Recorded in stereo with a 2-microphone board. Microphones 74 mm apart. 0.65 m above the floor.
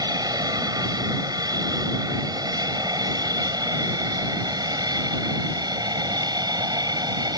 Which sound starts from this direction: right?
An aircraft, at 0.0 s.